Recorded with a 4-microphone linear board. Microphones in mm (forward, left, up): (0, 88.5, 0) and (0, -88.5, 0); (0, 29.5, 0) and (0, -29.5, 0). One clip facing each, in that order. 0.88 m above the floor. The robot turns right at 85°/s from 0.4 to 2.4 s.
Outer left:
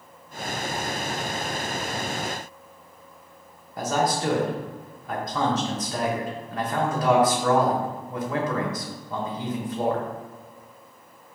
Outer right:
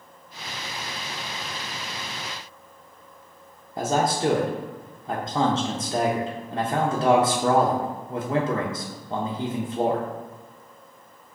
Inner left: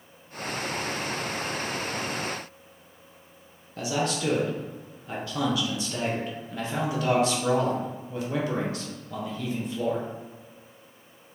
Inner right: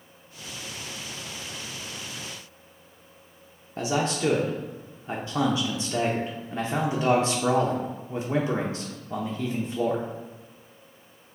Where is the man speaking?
25° right (ahead or behind), 0.7 m.